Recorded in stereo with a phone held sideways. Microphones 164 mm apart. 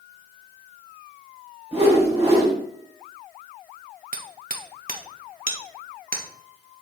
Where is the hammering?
55° right (ahead or behind), 1.0 m.